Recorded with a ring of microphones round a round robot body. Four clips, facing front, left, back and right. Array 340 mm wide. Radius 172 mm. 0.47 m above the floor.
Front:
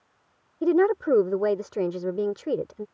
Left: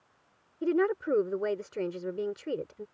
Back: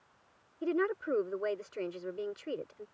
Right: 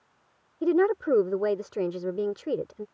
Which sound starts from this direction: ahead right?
A woman speaking, at 0.6 s.